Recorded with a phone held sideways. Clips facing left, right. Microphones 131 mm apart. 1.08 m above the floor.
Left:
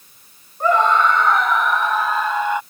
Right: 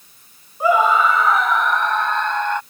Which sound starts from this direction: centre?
A scream, at 0.6 s.